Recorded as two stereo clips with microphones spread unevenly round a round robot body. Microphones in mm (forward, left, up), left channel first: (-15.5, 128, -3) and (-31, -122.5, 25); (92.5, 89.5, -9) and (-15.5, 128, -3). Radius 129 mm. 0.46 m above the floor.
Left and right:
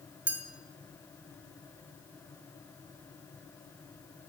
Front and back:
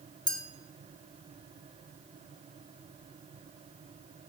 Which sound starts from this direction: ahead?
A clink, at 0.3 s.